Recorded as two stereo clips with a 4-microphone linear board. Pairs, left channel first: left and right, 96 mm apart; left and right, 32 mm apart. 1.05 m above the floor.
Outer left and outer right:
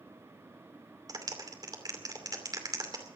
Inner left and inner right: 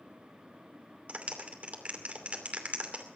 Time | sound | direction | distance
1.1 | a clap | 45° right (ahead or behind) | 2.5 m